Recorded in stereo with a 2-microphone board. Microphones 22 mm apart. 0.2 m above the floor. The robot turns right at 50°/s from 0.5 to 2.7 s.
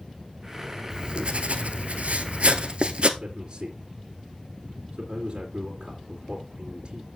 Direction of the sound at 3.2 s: 40° right (ahead or behind).